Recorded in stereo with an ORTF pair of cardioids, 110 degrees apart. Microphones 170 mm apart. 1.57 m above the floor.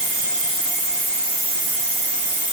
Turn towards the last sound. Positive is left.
No sound to turn to.